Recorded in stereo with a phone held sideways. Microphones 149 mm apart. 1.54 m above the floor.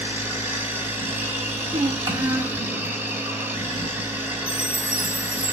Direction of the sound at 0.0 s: 15° right (ahead or behind).